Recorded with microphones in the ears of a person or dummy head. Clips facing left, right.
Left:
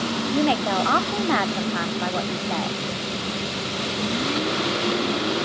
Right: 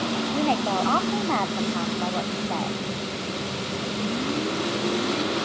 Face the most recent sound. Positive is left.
turn(degrees=15)  # may be behind; listen again after turning